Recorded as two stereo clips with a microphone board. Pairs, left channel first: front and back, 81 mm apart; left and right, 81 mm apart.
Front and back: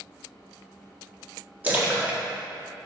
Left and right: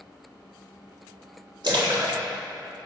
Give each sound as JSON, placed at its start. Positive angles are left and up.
{"t": 1.6, "sound": "a splash", "azimuth_deg": -110, "distance_m": 1.6}